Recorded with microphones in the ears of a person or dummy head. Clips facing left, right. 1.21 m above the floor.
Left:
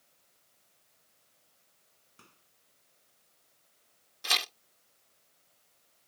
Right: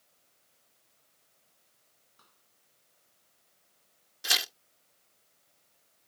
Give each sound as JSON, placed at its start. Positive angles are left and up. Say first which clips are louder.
{"t": 2.2, "sound": "a microwave", "louder": "left 8 dB", "side_deg": 35}
{"t": 4.2, "sound": "tearing paper", "louder": "left 1 dB", "side_deg": 0}